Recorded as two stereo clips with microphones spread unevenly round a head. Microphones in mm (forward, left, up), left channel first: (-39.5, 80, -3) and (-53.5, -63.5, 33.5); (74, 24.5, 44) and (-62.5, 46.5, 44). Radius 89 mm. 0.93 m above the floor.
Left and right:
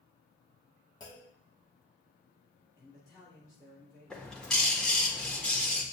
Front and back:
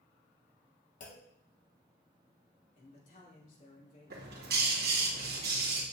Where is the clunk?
20° left, 1.4 m.